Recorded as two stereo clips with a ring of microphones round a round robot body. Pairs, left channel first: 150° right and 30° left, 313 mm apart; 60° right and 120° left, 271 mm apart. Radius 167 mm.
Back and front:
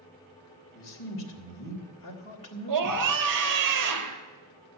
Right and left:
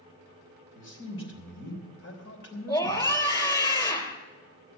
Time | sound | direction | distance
0.8 | a man speaking | 105° right | 3 m
2.7 | a scream | 15° left | 3 m